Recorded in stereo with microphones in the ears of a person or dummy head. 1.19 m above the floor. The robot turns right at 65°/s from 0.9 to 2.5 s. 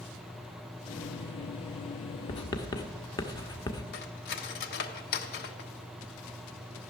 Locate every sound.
2.3 s writing: 40° left (ahead or behind), 1.1 m; by 3.8 s 25° left (ahead or behind), 1.1 m
3.9 s cutlery clinking: 60° left (ahead or behind), 1.1 m